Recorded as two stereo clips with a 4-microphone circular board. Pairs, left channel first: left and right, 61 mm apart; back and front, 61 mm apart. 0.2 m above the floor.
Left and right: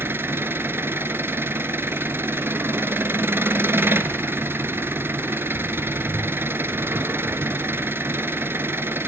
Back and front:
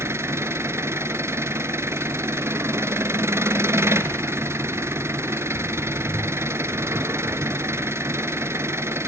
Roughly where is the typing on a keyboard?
No typing on a keyboard in this recording.